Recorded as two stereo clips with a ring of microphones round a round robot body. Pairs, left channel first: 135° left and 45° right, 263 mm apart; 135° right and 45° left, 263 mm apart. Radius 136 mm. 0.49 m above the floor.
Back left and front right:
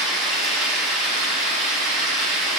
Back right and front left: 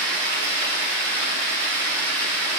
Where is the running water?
45° left, 4 m.